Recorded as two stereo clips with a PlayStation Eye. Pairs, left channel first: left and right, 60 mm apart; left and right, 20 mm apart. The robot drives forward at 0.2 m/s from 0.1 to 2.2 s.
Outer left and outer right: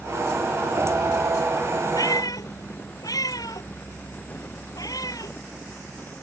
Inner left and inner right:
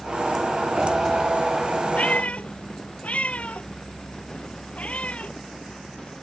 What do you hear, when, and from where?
1.9 s a cat meowing: 85° left